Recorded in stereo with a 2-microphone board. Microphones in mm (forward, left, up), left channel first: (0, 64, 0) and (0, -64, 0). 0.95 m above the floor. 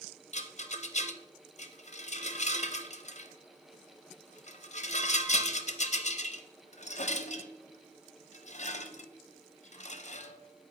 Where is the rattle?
65° left (ahead or behind), 0.5 m.